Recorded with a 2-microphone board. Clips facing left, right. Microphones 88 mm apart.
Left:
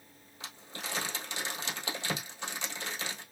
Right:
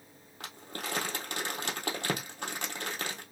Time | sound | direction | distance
0.4 | crumpling | 50° right (ahead or behind) | 1.9 m